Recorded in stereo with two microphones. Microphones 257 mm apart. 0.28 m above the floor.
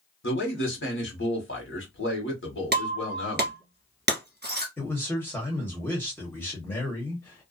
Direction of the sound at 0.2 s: 50° left (ahead or behind).